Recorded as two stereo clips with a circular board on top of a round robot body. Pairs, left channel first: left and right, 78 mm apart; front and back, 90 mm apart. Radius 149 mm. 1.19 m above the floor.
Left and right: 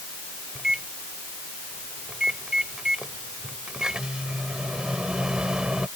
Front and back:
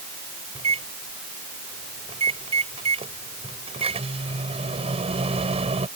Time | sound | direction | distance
0.6 | a microwave | 170° right | ?